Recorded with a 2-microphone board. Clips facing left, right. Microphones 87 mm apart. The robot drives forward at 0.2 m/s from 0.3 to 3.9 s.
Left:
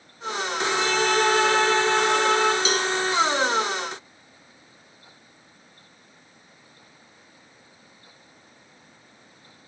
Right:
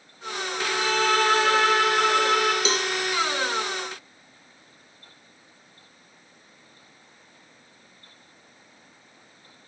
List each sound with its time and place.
0.6 s a violin: 75° right (ahead or behind), 6 m; by 2.5 s 80° right, 6 m
2.6 s a cowbell: 30° right (ahead or behind), 2 m